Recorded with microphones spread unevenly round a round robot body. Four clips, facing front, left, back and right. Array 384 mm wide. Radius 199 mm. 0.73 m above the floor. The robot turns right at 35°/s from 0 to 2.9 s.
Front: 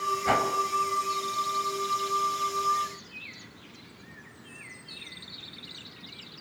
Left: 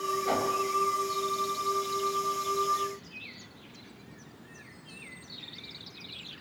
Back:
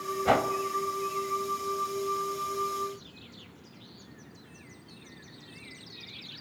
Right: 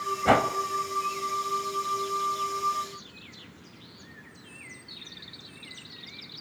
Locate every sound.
0.2 s a whoosh: 100° right, 2 m; by 0.5 s 90° right, 2 m